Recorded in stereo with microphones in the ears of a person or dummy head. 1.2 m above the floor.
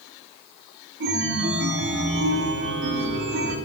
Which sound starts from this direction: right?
A chime, at 1.0 s.